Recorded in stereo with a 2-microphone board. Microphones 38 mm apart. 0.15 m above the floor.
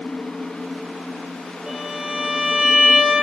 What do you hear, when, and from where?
1.7 s a violin: 20° right (ahead or behind), 1.6 m